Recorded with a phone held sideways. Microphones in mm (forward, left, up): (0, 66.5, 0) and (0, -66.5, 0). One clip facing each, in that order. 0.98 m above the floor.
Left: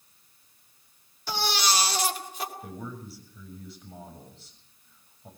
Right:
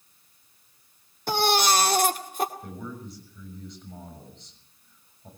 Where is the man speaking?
5° left (ahead or behind), 6.5 m.